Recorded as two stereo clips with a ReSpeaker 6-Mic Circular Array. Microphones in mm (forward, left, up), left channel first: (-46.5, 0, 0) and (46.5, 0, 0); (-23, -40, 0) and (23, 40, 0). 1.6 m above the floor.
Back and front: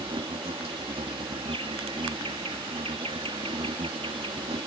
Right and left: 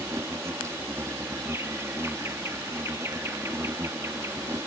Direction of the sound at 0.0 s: Straight ahead.